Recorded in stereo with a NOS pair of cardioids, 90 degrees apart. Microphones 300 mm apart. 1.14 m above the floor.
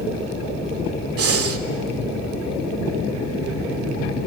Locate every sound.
1.2 s breathing: 50° right, 1.9 m